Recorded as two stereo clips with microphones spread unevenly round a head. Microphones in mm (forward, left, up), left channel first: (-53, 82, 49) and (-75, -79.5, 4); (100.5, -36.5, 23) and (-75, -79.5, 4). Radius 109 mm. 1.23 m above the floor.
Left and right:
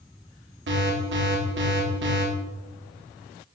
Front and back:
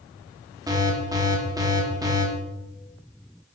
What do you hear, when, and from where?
0.7 s an alarm: 95° right, 3.5 m